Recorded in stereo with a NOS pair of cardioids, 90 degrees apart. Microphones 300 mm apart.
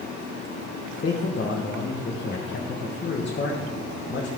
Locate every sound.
1.0 s a man speaking: 40° left, 1.5 m